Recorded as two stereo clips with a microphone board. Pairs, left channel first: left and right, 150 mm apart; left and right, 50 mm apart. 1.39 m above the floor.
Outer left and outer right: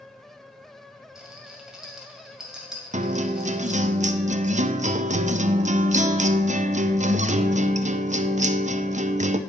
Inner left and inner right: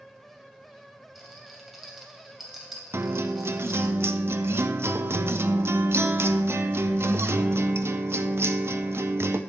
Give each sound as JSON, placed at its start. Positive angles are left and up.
{"t": 1.1, "sound": "a rattle", "side_deg": -5, "distance_m": 2.5}
{"t": 2.9, "sound": "a guitar", "side_deg": -55, "distance_m": 0.5}